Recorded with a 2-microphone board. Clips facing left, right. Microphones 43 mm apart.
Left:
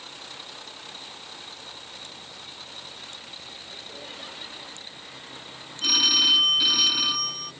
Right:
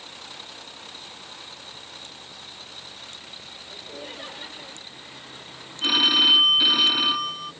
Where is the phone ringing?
20° right (ahead or behind).